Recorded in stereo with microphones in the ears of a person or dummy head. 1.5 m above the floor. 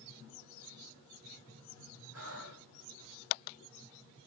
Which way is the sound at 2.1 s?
85° right.